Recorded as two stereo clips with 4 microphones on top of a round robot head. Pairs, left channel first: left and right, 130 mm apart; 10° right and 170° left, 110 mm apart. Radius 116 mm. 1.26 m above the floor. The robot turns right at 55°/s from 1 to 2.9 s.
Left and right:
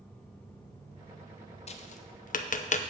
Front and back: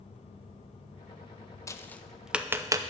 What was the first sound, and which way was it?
Tapping, 55° left.